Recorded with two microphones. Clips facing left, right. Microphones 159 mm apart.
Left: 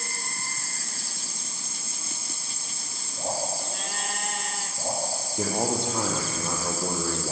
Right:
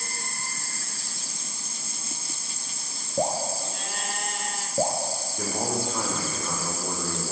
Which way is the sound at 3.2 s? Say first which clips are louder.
Right 4 dB; 60° right (ahead or behind).